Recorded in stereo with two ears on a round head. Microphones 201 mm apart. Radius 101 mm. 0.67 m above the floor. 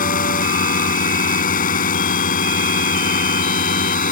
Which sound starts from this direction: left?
A drone, at 0.0 s.